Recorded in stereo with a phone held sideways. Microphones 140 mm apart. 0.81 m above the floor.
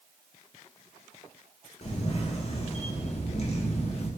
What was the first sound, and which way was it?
A camera shutter, 50° left (ahead or behind).